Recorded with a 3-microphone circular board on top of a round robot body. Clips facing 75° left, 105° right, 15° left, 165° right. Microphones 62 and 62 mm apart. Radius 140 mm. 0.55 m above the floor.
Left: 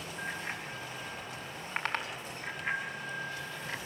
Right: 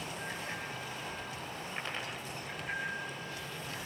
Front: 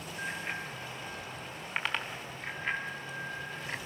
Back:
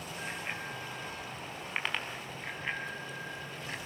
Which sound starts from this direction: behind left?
A bicycle bell, at 0.2 s.